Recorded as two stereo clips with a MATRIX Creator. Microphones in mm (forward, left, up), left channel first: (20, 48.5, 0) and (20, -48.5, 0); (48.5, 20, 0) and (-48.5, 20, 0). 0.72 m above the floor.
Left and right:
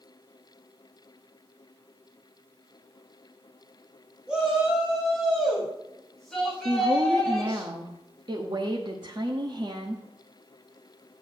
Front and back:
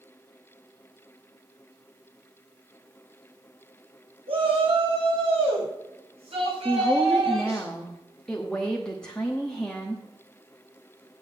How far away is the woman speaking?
About 1.1 m.